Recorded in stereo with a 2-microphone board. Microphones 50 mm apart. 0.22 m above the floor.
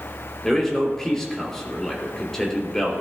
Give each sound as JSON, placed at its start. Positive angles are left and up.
{"t": 0.4, "sound": "a man speaking", "side_deg": 10, "distance_m": 4.0}